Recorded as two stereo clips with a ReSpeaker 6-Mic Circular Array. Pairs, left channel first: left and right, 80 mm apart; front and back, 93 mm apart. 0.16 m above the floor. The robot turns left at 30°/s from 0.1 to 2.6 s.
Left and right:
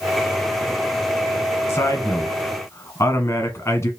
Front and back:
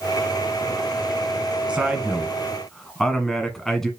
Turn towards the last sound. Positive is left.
turn(degrees=85)